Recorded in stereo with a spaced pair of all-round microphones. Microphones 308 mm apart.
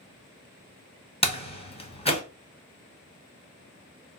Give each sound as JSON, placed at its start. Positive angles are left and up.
{"t": 1.2, "sound": "a door slam", "side_deg": 20, "distance_m": 0.8}